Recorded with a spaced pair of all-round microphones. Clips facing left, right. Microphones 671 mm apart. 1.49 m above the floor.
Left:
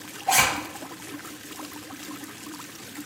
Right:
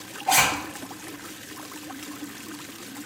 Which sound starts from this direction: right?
A zipper, at 0.3 s.